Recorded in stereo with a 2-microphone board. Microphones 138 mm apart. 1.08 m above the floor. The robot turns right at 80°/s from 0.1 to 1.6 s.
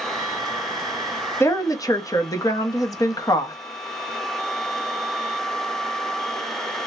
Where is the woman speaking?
20° left (ahead or behind), 0.8 m; by 3.5 s 25° left (ahead or behind), 0.8 m.